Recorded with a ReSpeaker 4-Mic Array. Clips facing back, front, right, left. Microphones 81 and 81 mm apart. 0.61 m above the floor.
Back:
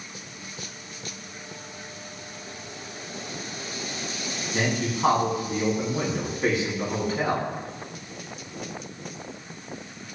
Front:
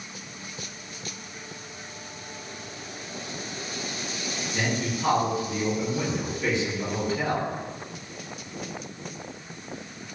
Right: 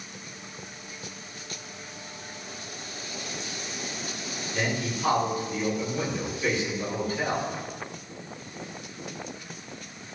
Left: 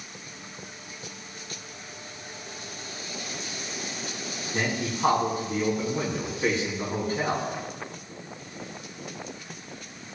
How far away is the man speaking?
About 4.5 m.